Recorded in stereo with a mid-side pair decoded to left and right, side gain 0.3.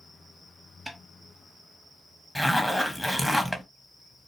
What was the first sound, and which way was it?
A snare drum, 20° right.